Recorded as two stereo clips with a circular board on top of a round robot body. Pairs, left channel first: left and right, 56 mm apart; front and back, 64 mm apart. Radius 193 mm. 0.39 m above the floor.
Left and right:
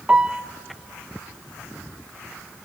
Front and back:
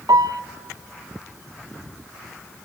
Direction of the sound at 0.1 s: 160° right.